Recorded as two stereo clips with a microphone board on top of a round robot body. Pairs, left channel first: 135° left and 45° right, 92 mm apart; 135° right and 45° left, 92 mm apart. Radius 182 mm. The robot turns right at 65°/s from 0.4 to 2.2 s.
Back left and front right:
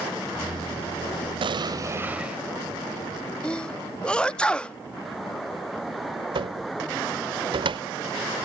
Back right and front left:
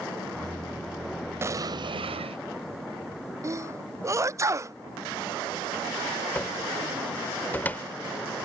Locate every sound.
1.4 s an explosion: 20° right; by 2.4 s 35° left
3.4 s a sneeze: 65° left
6.3 s a cupboard door: 65° right